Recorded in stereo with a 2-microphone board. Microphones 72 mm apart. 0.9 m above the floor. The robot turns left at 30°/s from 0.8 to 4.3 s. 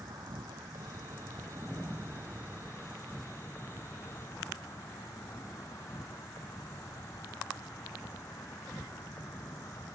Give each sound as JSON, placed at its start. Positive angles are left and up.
{"t": 0.0, "sound": "an insect", "azimuth_deg": -115}